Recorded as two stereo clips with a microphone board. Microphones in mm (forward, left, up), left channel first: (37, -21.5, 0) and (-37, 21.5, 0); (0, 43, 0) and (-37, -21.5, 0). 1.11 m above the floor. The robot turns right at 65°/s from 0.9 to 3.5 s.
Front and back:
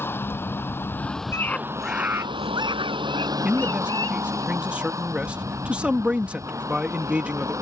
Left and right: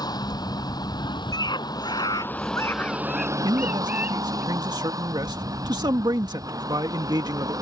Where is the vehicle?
35° left; by 7.6 s 155° right.